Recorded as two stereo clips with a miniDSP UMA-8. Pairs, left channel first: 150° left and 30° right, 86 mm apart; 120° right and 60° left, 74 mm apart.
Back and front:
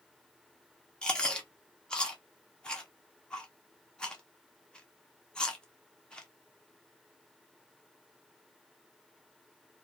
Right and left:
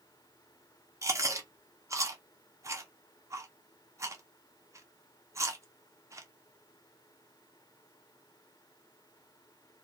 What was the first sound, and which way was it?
Chewing, 75° left.